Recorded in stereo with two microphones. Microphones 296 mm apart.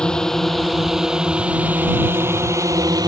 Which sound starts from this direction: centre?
A drone, at 0.0 s.